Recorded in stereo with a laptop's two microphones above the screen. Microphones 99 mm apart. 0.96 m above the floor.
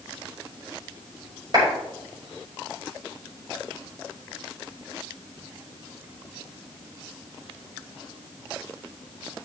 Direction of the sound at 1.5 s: 45° right (ahead or behind).